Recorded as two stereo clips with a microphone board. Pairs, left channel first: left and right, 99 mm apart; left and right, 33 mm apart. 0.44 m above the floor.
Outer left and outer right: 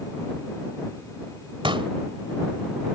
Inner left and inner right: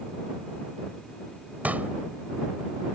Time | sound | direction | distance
1.6 | a pop | 60° right (ahead or behind) | ?